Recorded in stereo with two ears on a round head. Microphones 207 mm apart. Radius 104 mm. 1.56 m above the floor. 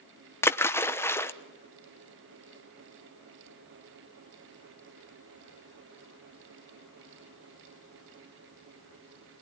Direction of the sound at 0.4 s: 10° left (ahead or behind).